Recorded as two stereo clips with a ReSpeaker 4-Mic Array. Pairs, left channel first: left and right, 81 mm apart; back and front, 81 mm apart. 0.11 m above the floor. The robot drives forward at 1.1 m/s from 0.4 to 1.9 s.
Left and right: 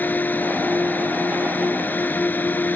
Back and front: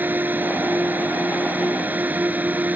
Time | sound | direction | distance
0.0 | a drone | 45° left | ?